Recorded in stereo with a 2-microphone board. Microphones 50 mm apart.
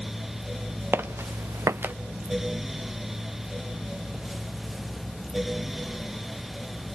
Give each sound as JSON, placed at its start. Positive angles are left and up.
{"t": 0.9, "sound": "footsteps", "side_deg": -50, "distance_m": 1.3}